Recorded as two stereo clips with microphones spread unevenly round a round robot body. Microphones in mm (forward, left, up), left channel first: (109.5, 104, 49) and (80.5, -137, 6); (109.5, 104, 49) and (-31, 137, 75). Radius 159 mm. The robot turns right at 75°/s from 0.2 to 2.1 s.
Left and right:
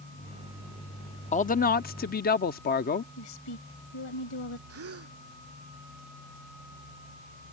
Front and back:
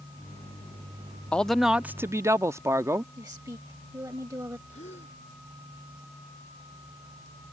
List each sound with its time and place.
1.3 s a man speaking: 35° left; by 3.1 s 95° left
3.2 s a woman speaking: 100° left
4.7 s a gasp: 75° right